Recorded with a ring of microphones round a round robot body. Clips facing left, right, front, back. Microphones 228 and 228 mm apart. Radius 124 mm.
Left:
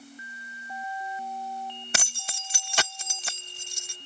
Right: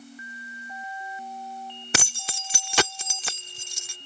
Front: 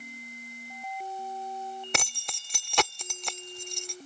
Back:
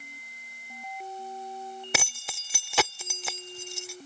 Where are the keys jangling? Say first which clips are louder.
Right 6 dB, back 1 dB; 95° right.